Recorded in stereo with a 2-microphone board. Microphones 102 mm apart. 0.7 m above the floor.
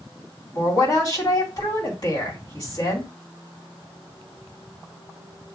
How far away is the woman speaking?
About 2 m.